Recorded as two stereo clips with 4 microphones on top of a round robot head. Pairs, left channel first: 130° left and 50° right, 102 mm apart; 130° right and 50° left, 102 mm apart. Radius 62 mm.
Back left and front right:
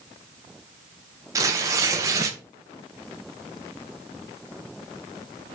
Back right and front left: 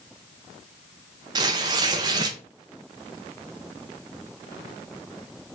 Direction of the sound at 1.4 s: 5° left.